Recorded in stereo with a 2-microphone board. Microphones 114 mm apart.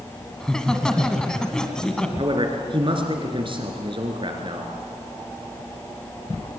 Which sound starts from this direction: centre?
Laughter, at 0.4 s.